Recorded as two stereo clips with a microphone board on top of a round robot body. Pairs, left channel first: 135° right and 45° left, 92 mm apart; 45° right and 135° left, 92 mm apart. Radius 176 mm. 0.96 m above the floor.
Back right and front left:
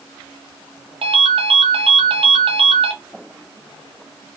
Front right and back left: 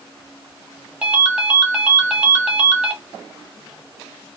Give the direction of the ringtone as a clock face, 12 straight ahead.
10 o'clock.